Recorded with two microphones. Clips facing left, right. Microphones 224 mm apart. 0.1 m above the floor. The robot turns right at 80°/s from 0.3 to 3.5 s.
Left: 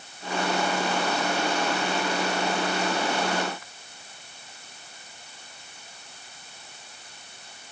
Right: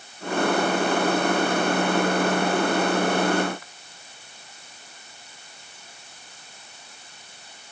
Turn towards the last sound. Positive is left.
No sound to turn to.